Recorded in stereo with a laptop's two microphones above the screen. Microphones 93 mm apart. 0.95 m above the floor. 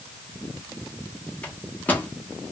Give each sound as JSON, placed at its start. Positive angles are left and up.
{"t": 1.4, "sound": "a microwave", "side_deg": 15, "distance_m": 0.8}